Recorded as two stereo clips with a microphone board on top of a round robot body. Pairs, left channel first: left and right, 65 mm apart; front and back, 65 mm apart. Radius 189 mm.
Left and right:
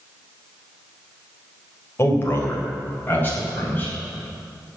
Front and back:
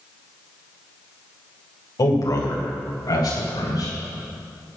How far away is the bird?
No bird in this recording.